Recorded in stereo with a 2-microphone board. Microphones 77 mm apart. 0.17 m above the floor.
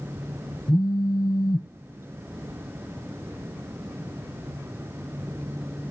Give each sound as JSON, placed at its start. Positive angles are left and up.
{"t": 0.7, "sound": "a phone buzzing", "side_deg": 65, "distance_m": 1.7}